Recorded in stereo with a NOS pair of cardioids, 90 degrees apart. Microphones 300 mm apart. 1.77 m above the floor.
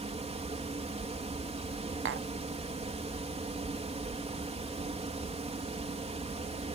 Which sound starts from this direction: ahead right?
Tapping, at 2.0 s.